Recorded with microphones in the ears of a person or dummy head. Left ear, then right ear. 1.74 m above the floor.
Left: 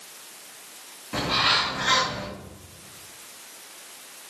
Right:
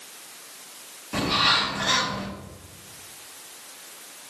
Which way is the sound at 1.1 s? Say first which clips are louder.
Right 1 dB; 5° left (ahead or behind).